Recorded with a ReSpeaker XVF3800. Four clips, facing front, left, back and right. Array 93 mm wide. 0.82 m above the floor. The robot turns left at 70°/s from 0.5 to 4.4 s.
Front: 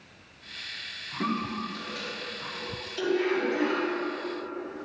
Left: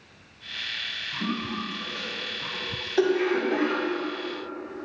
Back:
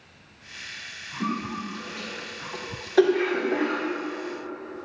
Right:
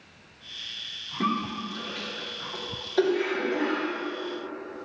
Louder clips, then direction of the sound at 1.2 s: Right 3 dB, back 1 dB; 65° right.